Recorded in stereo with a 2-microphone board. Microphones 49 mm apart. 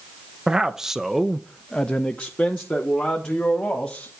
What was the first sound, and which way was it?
A man speaking, 15° right (ahead or behind).